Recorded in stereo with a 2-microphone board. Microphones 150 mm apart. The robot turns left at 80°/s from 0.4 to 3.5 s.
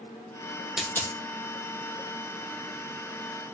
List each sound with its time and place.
0.8 s a dropped coin: 5° right (ahead or behind), 0.8 m; by 1.2 s 30° left (ahead or behind), 0.8 m